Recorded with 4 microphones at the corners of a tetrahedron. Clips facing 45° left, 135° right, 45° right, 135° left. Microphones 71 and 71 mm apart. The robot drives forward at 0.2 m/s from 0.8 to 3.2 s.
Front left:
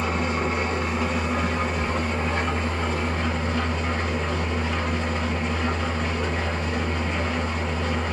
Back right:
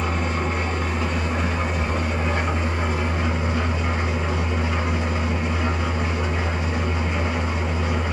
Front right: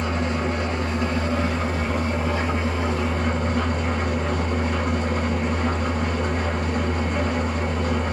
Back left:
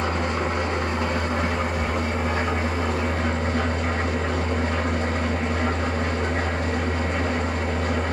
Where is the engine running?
135° left, 1.3 m; by 8.1 s 145° left, 1.6 m.